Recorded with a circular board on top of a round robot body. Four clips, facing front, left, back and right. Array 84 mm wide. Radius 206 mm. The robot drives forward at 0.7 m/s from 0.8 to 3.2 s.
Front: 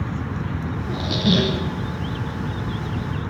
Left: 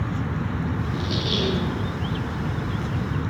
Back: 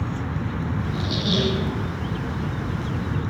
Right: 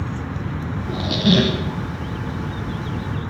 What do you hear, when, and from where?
0.9 s a squeak: 55° right, 1.4 m; by 1.6 s 75° right, 1.2 m